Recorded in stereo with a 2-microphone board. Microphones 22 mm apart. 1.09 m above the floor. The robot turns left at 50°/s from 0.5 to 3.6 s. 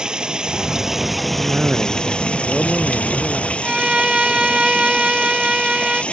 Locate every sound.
0.0 s running water: 145° right; by 6.1 s 60° left
1.3 s a cough: 100° right; by 3.5 s 150° left
3.6 s a violin: 45° right (ahead or behind)